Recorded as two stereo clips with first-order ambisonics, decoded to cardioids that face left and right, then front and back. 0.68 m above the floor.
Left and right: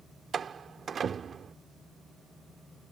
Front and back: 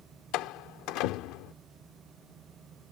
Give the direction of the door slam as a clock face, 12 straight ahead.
1 o'clock.